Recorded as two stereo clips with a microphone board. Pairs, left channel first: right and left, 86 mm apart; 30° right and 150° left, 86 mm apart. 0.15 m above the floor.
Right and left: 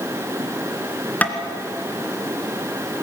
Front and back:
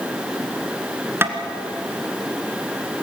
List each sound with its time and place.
1.2 s tapping: 155° right, 1.9 m